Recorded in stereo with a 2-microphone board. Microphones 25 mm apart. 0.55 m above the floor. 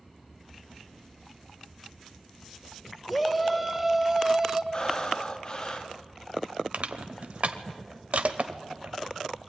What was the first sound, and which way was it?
A shout, centre (ahead or behind).